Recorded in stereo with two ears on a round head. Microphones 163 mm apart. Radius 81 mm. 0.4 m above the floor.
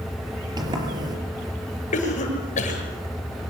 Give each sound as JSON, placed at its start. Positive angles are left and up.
{"t": 0.6, "sound": "a sliding door", "side_deg": -25, "distance_m": 4.5}
{"t": 1.9, "sound": "a cough", "side_deg": 45, "distance_m": 8.0}